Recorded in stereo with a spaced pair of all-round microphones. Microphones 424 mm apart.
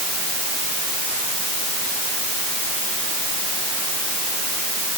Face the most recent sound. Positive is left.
No sound to turn to.